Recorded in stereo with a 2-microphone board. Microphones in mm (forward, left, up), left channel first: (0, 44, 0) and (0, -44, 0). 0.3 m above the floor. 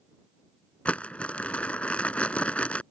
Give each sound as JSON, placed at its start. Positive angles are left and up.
{"t": 0.8, "sound": "crumpling", "side_deg": 15}